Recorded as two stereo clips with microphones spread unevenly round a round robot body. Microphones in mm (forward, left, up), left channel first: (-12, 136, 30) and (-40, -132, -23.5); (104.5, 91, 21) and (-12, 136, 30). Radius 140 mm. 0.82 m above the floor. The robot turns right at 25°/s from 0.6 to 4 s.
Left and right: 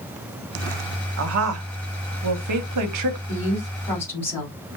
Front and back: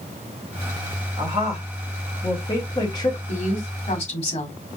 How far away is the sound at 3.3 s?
About 2 m.